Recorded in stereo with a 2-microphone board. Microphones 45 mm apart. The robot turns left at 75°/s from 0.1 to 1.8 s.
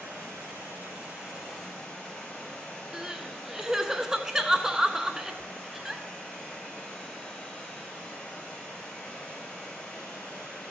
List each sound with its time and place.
0.0 s running water: 75° right, 5.5 m; by 10.7 s 160° left, 5.5 m
2.9 s crying: 15° right (ahead or behind), 0.7 m